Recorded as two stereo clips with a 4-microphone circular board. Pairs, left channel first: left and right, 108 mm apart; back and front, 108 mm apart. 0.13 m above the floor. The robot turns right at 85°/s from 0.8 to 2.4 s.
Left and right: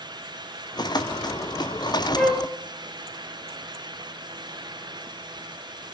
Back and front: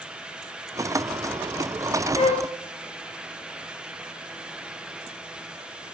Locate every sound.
2.1 s a flute: 165° left, 0.7 m; by 2.5 s 175° right, 0.7 m